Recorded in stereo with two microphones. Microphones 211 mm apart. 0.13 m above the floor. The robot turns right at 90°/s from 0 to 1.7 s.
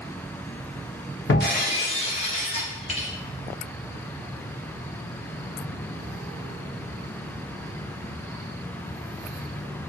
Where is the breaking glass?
110° left, 1.5 m; by 3.1 s 150° left, 1.5 m.